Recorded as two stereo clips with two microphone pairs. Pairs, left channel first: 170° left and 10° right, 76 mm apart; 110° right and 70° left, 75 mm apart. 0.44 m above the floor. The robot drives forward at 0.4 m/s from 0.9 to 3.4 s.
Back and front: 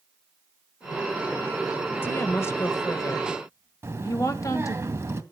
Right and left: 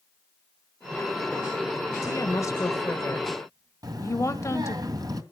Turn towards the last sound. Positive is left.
turn(degrees=45)